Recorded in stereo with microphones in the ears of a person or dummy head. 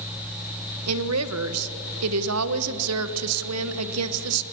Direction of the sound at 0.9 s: 80° right.